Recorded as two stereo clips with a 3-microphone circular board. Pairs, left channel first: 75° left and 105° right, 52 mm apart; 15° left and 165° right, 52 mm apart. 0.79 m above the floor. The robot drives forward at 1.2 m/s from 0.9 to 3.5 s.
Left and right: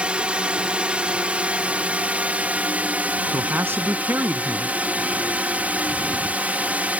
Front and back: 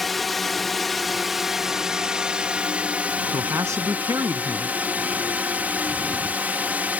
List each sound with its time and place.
0.0 s a drone: 70° right; by 7.0 s 140° right
3.3 s a man speaking: 150° right